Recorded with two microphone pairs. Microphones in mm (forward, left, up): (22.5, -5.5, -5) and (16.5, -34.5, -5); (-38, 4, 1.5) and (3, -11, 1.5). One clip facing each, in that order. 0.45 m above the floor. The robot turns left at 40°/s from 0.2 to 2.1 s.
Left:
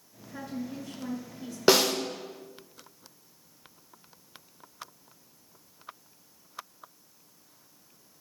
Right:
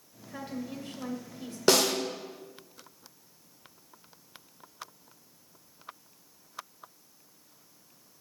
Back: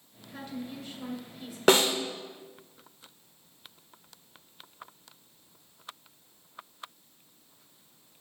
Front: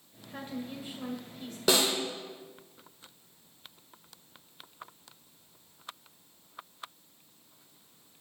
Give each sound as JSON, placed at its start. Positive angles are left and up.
{"t": 0.3, "sound": "a woman speaking", "azimuth_deg": -70, "distance_m": 1.9}
{"t": 1.7, "sound": "a snare drum", "azimuth_deg": 150, "distance_m": 1.0}